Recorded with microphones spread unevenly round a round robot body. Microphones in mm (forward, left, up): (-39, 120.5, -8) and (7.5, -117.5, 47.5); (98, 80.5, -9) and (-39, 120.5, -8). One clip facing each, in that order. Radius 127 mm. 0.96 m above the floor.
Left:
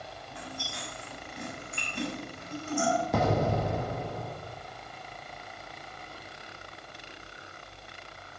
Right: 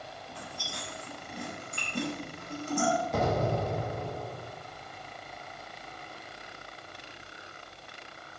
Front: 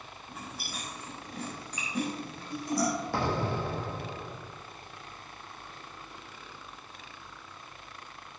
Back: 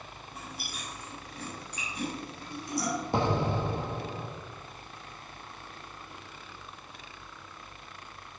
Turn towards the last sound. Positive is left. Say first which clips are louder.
# left 4 dB, back 2 dB
turn(degrees=95)